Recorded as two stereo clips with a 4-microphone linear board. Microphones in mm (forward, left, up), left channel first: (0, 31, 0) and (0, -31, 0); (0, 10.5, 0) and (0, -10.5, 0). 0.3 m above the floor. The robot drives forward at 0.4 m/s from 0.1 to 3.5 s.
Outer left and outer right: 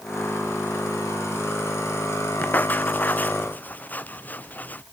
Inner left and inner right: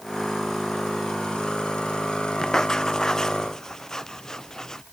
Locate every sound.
2.4 s writing: 25° left (ahead or behind)